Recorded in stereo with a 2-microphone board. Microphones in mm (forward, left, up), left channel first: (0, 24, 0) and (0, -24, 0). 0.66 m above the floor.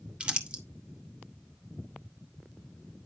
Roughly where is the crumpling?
Right.